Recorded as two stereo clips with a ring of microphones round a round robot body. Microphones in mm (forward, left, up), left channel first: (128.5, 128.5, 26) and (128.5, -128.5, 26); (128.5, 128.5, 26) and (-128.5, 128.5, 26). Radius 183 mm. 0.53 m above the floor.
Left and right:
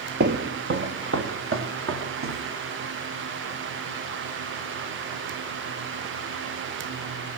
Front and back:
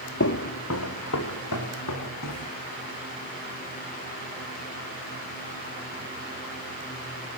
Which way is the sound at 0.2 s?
45° right.